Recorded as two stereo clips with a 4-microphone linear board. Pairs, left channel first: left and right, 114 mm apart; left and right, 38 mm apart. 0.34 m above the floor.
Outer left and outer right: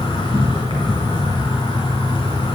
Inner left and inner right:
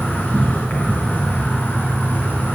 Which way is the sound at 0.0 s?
45° left (ahead or behind).